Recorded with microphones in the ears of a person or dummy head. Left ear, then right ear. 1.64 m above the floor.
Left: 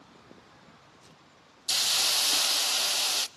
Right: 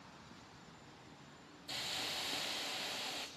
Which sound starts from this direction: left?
A hiss, at 1.7 s.